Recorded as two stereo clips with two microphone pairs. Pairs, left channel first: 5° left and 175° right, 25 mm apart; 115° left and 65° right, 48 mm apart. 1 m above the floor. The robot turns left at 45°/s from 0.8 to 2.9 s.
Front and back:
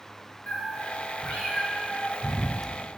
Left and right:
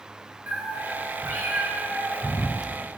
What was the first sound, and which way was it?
A cat meowing, 10° right.